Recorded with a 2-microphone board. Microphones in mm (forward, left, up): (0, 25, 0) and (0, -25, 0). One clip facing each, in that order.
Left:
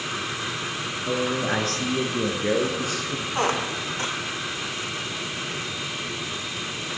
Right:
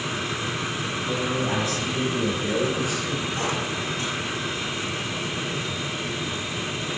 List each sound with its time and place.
1.1 s a man speaking: 50° left (ahead or behind), 1.8 m
3.4 s a squeak: 50° left (ahead or behind), 1.2 m